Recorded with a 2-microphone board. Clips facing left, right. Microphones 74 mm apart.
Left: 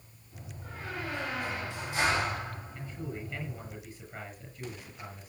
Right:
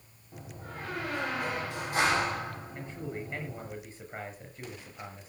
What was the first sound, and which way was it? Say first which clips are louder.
A door slam: right 3 dB; 50° right (ahead or behind).